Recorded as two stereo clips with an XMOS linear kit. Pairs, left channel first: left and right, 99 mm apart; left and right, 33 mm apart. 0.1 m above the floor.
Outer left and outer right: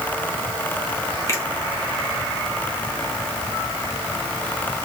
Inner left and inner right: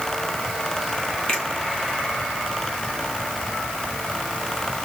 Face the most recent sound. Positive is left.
turn(degrees=30)  # may be behind; listen again after turning